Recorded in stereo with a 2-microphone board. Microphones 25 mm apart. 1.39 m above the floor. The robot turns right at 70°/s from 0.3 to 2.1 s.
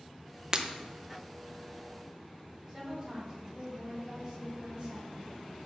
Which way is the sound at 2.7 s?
30° right (ahead or behind).